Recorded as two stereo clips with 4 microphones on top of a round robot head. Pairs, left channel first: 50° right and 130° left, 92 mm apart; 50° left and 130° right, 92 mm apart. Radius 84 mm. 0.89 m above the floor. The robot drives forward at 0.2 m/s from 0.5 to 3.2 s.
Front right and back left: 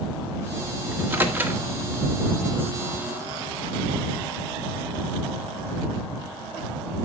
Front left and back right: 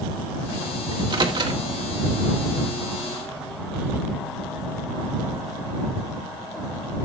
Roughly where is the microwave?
Behind.